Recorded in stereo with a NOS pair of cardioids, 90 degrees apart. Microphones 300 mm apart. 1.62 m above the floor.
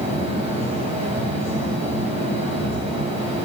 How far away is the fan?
About 9.5 m.